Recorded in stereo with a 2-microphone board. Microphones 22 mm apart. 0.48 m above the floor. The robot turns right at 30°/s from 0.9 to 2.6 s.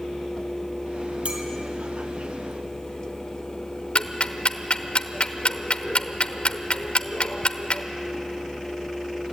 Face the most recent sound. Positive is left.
turn(degrees=60)  # may be behind; listen again after turning